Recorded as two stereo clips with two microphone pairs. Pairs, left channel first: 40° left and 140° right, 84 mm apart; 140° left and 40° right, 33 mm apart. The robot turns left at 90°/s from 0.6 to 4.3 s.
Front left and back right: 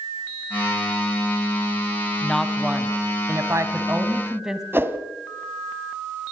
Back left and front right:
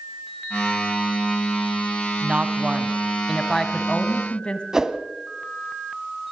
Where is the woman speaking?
30° right, 1.7 m; by 4.6 s 145° left, 1.7 m.